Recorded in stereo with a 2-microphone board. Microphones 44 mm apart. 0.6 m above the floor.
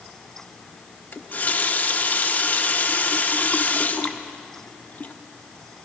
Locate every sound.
1.1 s a running tap: 40° left (ahead or behind), 0.6 m